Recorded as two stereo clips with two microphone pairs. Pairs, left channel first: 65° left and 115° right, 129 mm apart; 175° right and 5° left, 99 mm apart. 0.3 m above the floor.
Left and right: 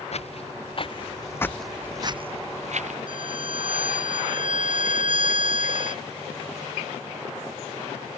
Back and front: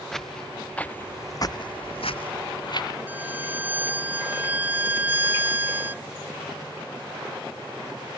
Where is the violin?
70° right.